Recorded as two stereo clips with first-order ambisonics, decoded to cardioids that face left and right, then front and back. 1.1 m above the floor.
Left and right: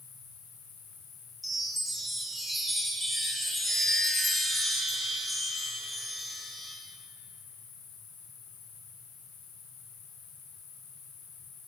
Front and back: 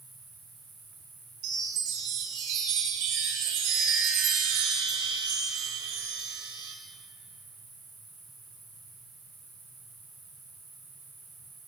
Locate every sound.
0.0 s an insect: 105° left, 4.5 m
1.4 s a chime: 175° left, 2 m